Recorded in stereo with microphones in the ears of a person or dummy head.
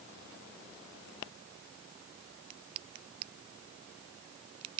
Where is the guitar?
No guitar in this recording.